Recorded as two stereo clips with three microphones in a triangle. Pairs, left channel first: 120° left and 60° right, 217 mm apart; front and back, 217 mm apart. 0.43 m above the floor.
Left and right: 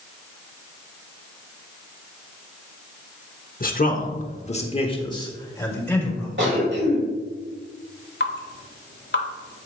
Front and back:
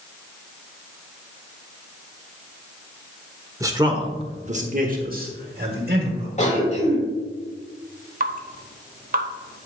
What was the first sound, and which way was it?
A man speaking, 110° left.